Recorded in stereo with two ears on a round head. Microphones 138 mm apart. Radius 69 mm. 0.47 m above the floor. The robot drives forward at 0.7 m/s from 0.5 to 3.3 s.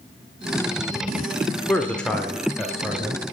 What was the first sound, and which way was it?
A man speaking, 10° left (ahead or behind).